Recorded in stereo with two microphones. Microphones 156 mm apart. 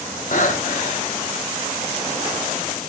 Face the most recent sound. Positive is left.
turn(degrees=55)  # may be behind; listen again after turning